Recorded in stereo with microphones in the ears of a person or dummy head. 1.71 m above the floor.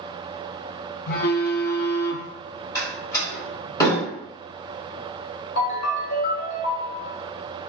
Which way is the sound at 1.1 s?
55° left (ahead or behind).